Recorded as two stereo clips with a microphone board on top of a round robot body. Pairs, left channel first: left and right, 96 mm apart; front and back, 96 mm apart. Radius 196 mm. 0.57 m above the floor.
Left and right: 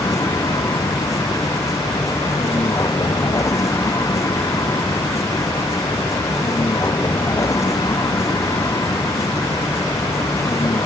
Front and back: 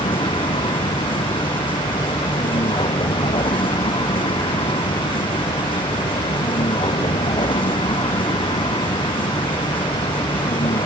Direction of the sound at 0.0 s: 35° left.